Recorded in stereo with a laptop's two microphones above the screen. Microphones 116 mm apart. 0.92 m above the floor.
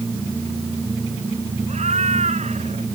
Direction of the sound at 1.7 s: 75° right (ahead or behind).